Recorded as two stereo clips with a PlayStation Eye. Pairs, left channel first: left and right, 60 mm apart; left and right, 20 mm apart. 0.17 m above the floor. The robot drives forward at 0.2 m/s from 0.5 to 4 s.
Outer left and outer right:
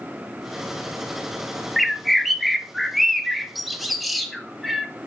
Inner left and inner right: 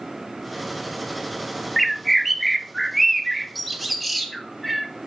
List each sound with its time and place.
1.8 s a bird: centre (ahead or behind), 0.5 m